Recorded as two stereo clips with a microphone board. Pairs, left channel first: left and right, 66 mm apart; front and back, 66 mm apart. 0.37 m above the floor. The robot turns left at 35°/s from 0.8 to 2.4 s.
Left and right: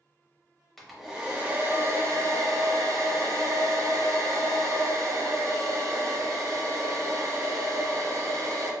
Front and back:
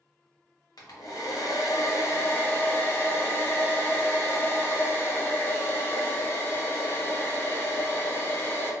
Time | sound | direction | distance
0.8 | a hair dryer | straight ahead | 0.7 m